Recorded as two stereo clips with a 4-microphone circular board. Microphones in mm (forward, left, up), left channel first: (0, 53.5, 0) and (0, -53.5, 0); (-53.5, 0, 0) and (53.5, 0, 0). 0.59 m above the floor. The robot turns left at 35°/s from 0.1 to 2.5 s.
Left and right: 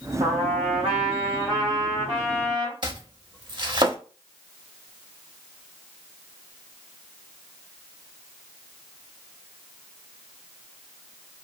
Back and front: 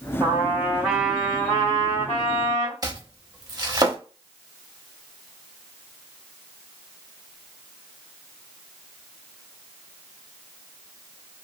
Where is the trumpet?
60° right, 1.6 m; by 2.7 s 140° right, 1.6 m.